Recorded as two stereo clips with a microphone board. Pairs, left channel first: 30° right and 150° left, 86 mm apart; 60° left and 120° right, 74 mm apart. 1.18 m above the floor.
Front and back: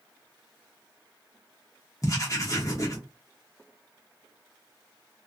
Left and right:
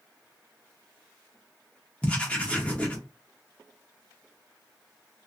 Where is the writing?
5° right, 0.8 m.